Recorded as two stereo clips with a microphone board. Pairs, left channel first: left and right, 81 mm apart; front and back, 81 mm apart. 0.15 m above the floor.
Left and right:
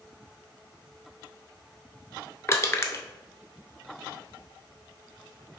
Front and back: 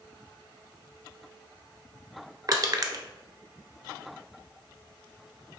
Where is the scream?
No scream in this recording.